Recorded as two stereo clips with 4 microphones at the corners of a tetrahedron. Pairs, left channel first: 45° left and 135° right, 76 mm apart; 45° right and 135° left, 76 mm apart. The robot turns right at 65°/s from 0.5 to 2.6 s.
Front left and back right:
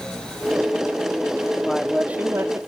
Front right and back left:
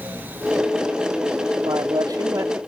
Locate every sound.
1.6 s a man speaking: 125° left; by 2.6 s 170° right